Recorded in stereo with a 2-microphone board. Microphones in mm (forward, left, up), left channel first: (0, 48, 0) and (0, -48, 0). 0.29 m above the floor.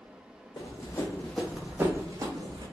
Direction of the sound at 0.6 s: 45° left (ahead or behind).